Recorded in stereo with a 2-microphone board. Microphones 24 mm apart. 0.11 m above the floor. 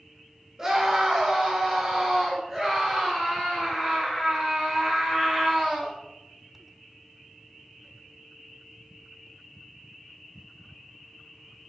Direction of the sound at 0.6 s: 20° right (ahead or behind).